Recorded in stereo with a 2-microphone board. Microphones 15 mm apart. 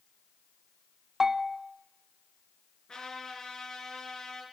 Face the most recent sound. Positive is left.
turn(degrees=60)  # may be behind; listen again after turning